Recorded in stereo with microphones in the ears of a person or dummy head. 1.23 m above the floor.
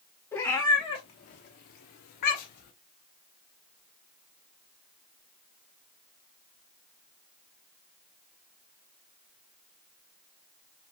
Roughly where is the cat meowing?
Centre.